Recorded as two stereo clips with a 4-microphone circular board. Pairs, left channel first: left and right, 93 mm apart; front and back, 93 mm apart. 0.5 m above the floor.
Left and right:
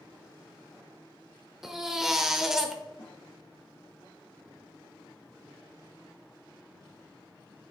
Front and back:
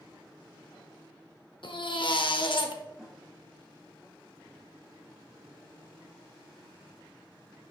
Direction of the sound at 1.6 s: 5° right.